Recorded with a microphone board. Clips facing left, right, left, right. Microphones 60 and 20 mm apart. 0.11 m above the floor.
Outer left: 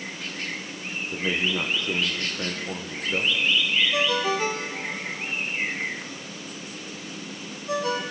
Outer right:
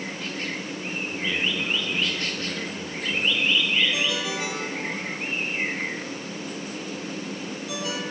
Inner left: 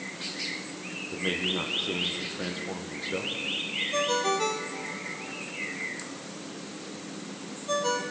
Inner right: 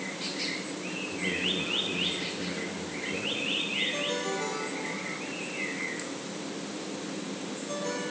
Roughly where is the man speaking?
Left.